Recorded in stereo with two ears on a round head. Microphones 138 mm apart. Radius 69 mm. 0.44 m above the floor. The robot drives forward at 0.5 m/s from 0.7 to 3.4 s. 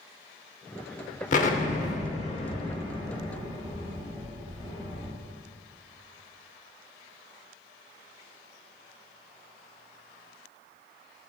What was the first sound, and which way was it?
An explosion, 50° left (ahead or behind).